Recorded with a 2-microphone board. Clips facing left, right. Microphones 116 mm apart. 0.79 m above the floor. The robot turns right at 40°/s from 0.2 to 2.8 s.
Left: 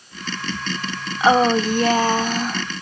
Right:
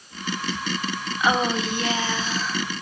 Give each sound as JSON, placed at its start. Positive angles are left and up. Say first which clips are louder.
{"t": 1.2, "sound": "a woman speaking", "louder": "left 7 dB", "azimuth_deg": 40, "distance_m": 1.0}